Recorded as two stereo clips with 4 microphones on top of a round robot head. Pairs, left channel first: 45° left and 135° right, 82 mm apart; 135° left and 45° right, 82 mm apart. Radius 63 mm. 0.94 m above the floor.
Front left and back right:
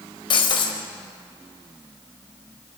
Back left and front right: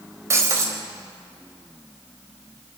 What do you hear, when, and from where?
0.3 s breaking glass: 15° left, 3 m